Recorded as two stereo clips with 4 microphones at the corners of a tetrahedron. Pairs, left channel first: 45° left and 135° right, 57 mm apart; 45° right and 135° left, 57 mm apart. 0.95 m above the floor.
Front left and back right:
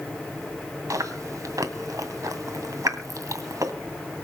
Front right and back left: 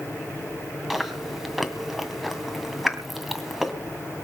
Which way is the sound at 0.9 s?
140° right.